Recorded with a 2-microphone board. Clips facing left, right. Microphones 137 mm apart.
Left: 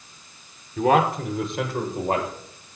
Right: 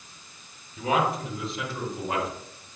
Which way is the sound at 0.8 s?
75° left (ahead or behind).